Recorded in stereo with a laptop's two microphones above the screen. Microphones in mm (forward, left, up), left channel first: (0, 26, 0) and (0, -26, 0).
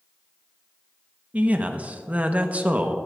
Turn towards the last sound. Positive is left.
turn(degrees=-30)  # may be behind; listen again after turning